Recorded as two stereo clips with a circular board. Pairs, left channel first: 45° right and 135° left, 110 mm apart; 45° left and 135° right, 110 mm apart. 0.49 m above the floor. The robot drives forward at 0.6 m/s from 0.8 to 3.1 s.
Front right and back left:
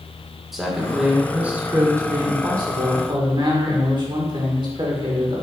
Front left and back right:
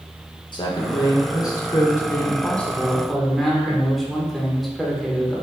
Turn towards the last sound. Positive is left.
turn(degrees=135)